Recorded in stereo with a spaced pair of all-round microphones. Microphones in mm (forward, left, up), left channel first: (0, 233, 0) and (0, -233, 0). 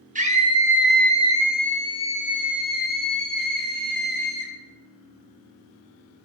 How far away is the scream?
About 0.9 m.